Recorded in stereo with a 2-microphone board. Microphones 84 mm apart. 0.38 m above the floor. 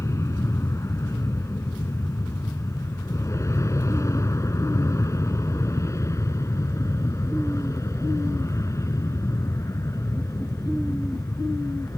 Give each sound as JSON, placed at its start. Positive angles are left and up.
{"t": 0.0, "sound": "an aircraft", "side_deg": 35}